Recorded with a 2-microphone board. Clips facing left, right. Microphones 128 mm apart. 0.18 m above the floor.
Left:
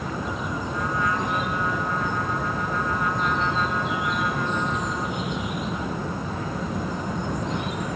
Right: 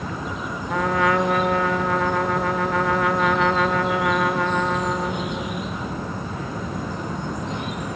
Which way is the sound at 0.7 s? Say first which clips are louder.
Right 8 dB; 70° right (ahead or behind).